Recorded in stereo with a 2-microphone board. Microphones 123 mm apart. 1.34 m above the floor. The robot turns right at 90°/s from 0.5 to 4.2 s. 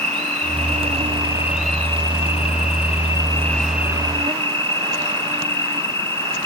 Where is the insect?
105° right; by 6.5 s 130° right.